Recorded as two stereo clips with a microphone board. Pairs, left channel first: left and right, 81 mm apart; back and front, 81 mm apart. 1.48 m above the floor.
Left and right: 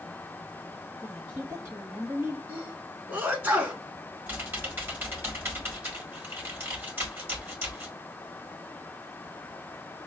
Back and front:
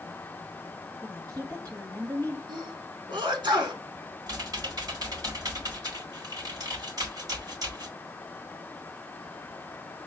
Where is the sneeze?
25° right, 1.8 m.